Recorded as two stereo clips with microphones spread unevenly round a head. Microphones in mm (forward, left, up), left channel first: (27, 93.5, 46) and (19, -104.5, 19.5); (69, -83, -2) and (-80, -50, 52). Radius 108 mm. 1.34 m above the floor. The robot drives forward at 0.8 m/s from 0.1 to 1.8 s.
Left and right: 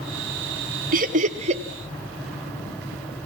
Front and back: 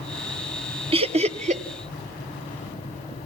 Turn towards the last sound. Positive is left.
turn(degrees=-150)